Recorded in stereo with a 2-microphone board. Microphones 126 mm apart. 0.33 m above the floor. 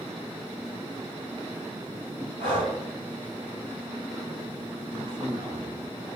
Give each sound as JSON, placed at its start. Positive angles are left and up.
{"t": 2.4, "sound": "breathing", "side_deg": -85, "distance_m": 5.5}
{"t": 4.9, "sound": "a man speaking", "side_deg": -50, "distance_m": 5.0}